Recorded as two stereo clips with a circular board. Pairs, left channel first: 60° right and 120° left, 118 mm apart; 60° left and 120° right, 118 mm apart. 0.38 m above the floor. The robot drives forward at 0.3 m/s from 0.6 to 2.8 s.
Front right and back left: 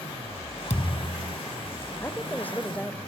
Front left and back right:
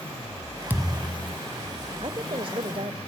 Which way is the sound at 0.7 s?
45° right.